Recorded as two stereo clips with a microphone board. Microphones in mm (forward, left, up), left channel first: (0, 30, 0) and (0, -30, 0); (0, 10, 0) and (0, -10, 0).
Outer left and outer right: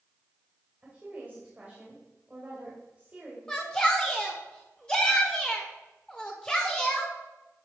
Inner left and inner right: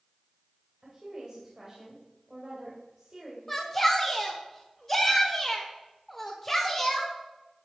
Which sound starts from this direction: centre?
A shout, at 3.5 s.